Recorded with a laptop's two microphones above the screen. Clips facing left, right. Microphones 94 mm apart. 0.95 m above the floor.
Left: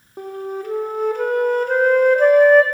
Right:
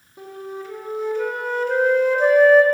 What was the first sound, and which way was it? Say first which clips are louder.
A flute: left 6 dB; 50° left (ahead or behind).